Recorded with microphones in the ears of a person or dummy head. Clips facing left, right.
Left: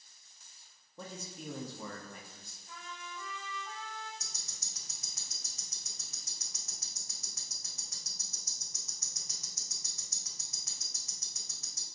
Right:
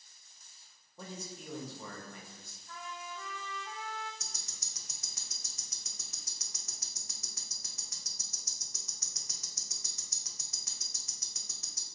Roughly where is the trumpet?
Left.